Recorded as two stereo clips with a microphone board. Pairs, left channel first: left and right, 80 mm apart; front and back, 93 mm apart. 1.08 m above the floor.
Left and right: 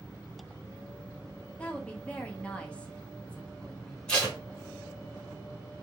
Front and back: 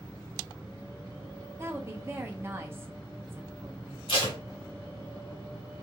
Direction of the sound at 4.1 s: 10° left.